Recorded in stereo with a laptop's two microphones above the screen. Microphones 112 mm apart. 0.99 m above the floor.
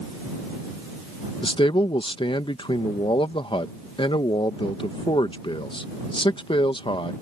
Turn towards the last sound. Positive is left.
turn(degrees=50)  # may be behind; listen again after turning